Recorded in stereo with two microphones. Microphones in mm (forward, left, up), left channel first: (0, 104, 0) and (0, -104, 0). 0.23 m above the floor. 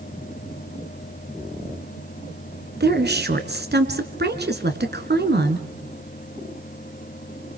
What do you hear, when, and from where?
2.8 s a woman speaking: 55° right (ahead or behind), 3 m